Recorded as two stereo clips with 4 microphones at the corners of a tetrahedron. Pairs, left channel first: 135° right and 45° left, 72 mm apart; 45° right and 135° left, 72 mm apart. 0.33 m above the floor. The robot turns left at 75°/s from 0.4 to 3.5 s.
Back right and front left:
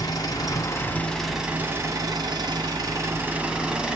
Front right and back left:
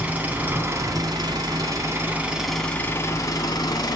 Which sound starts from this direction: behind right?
An engine running, at 0.0 s.